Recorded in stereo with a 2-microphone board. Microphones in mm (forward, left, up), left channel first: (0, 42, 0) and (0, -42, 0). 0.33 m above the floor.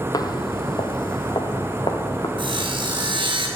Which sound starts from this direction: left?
Footsteps, at 0.1 s.